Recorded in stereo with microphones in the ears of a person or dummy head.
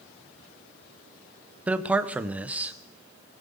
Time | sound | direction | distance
1.7 | a man speaking | 10° right (ahead or behind) | 0.6 m